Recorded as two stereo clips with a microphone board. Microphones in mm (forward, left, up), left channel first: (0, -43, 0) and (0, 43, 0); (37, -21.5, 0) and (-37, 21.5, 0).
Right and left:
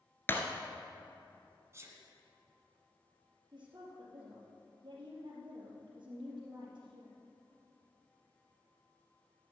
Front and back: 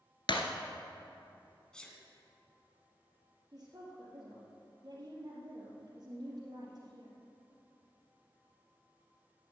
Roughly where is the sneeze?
Ahead left.